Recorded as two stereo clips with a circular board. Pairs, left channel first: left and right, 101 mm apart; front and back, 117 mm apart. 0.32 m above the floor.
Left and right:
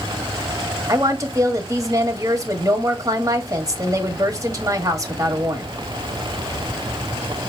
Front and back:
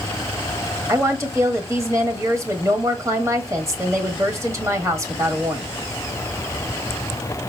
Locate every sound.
0.9 s a woman speaking: 125° right, 1.4 m